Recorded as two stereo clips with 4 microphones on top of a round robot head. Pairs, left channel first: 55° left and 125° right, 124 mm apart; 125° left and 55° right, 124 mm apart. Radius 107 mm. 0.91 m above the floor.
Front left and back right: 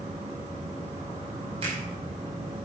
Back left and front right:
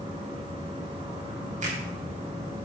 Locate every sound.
0.0 s an insect: 95° right, 5.5 m
1.6 s a finger snap: 80° right, 5.5 m